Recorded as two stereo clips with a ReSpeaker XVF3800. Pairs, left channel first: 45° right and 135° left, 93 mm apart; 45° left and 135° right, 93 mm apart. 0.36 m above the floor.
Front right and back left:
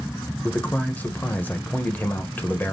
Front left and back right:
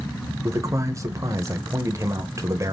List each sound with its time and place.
0.4 s a man speaking: 105° right, 1.2 m